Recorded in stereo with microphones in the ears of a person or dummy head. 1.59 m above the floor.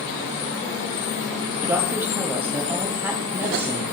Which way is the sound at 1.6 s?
10° right (ahead or behind).